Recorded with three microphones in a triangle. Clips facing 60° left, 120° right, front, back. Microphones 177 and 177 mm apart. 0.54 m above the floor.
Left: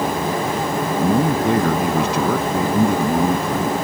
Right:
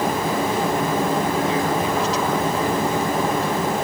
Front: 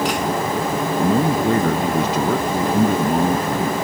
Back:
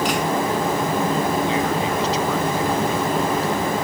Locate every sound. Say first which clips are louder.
1.0 s a man speaking: left 4 dB, front 3 dB; 35° left